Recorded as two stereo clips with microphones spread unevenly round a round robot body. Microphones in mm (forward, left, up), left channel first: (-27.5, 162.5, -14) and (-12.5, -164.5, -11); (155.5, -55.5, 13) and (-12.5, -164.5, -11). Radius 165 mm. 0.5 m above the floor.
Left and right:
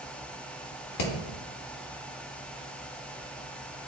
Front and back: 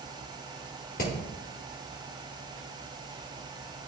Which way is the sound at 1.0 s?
85° left.